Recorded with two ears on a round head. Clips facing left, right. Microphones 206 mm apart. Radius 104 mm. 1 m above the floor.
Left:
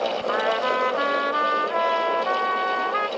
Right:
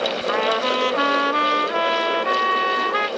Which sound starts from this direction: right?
A trumpet, at 0.3 s.